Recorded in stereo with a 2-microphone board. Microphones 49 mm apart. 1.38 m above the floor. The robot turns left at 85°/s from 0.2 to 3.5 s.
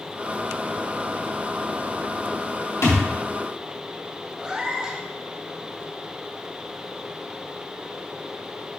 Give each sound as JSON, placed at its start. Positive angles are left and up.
{"t": 2.8, "sound": "a thud", "side_deg": 70, "distance_m": 2.5}
{"t": 4.4, "sound": "a cat meowing", "side_deg": -20, "distance_m": 1.3}